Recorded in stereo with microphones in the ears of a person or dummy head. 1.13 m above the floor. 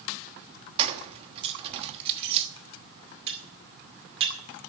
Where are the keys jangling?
35° right (ahead or behind), 1.2 m.